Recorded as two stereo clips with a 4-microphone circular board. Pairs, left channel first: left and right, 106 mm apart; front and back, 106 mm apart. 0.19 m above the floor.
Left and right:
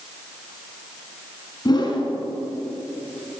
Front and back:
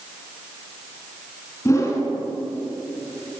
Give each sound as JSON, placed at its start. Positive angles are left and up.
{"t": 1.6, "sound": "a whoosh", "azimuth_deg": 55, "distance_m": 0.7}